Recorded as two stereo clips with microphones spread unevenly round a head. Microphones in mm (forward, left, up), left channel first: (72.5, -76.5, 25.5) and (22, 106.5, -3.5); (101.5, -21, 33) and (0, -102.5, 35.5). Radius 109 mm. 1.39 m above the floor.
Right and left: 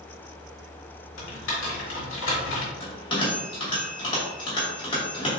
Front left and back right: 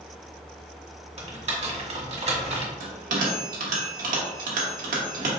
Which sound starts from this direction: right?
Typing on a keyboard, at 1.2 s.